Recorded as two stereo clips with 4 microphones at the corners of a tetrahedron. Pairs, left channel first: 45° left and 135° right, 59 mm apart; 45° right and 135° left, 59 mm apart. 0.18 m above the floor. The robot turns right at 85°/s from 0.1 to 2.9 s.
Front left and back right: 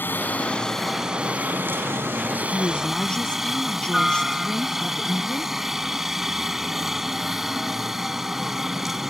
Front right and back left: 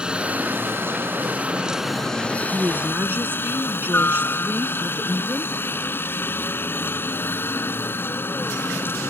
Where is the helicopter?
70° left; by 9.1 s 55° right.